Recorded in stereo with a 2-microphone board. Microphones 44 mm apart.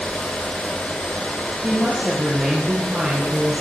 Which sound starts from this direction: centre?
A woman speaking, at 1.6 s.